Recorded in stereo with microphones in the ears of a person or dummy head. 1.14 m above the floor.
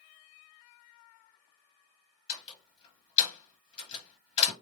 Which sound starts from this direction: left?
A door slam, at 2.3 s.